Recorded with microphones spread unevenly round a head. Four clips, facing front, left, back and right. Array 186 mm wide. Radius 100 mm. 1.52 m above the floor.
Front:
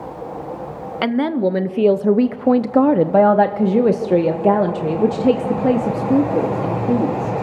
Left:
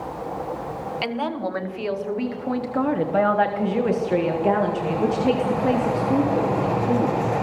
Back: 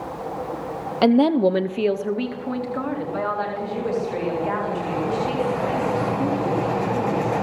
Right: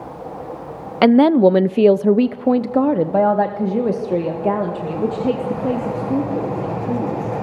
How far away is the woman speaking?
About 0.7 m.